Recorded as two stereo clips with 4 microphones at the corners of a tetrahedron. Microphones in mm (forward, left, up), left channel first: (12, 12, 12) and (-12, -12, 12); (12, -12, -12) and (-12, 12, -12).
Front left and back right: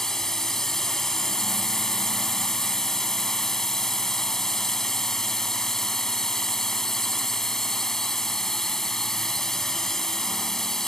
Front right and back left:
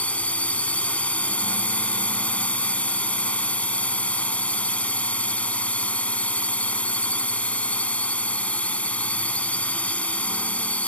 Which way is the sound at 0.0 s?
25° right.